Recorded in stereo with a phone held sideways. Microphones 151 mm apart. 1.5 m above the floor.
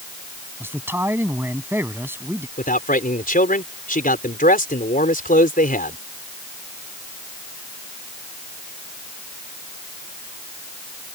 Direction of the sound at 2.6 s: 70° left (ahead or behind).